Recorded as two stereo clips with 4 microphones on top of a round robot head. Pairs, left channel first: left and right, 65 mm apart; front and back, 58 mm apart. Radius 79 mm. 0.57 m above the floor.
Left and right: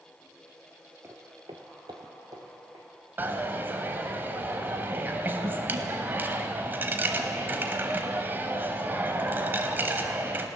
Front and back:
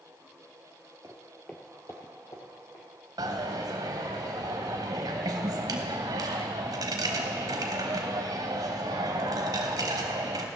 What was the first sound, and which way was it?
Footsteps, 135° right.